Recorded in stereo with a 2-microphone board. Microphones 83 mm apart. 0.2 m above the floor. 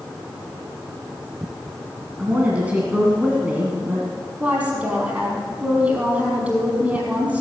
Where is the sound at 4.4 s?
15° right (ahead or behind), 5.5 m.